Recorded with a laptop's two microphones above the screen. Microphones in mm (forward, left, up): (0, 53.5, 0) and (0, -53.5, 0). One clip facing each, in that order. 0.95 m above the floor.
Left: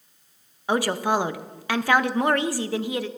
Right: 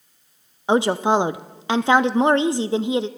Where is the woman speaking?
25° right (ahead or behind), 0.6 m.